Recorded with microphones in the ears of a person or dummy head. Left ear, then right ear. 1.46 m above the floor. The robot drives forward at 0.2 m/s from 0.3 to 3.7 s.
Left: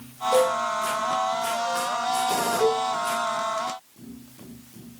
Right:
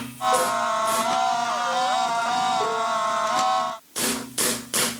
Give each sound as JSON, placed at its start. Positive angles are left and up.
{"t": 0.3, "sound": "a cowbell", "side_deg": 65, "distance_m": 3.5}
{"t": 2.6, "sound": "a cowbell", "side_deg": 50, "distance_m": 2.5}